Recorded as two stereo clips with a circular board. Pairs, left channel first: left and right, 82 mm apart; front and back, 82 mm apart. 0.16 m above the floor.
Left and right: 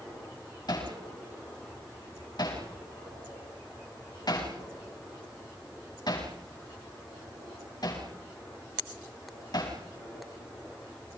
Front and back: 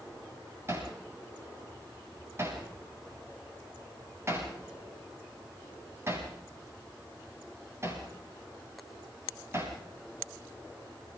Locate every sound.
0.7 s hammering: 125° left, 7.5 m